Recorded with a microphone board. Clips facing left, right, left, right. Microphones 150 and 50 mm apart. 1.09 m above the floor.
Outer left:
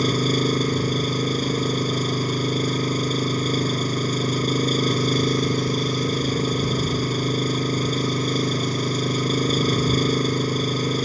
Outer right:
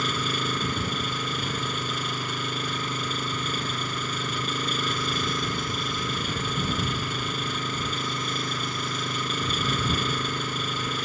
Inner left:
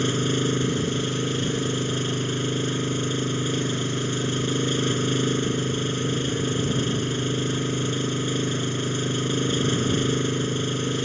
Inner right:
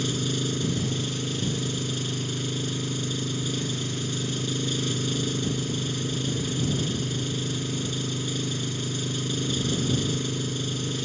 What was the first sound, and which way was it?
An engine running, 40° left (ahead or behind).